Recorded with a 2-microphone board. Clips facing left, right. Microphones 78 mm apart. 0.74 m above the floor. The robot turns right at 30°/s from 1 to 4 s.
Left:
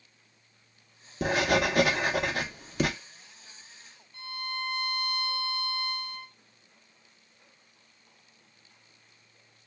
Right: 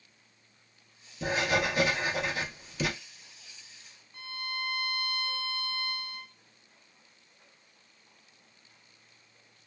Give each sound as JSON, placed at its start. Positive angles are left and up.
{"t": 1.2, "sound": "writing", "azimuth_deg": 75, "distance_m": 0.6}
{"t": 4.1, "sound": "a violin", "side_deg": -20, "distance_m": 0.7}